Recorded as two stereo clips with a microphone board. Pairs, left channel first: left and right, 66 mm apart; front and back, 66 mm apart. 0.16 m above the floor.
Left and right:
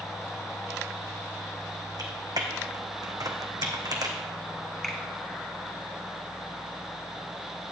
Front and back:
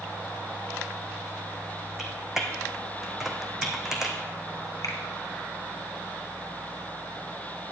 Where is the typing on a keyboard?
95° right, 1.4 m.